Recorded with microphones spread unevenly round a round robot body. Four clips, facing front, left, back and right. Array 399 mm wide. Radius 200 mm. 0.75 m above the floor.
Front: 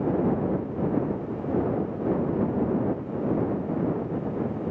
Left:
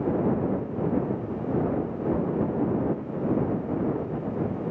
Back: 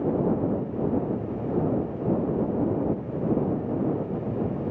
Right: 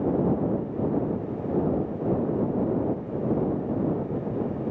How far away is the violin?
No violin in this recording.